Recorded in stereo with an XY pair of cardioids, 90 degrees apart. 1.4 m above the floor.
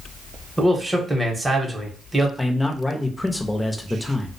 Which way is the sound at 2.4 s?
20° left.